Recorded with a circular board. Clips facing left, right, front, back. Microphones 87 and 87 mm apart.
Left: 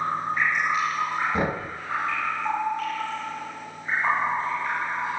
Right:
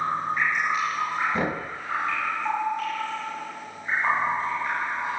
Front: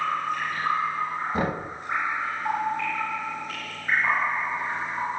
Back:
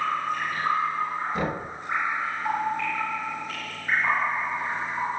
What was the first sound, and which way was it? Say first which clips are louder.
Knocking: left 1 dB, front 1 dB; 25° left.